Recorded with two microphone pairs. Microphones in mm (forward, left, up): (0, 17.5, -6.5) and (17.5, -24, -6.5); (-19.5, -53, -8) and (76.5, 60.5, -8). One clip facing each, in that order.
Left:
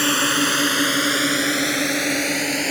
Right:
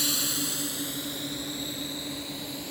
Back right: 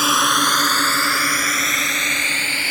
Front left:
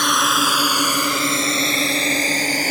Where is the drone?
145° left; by 2.7 s 100° left.